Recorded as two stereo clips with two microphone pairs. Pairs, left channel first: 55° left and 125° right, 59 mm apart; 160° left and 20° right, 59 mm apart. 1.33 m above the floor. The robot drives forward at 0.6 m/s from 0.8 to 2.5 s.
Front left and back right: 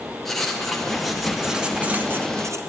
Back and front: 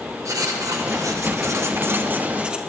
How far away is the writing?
About 1.2 m.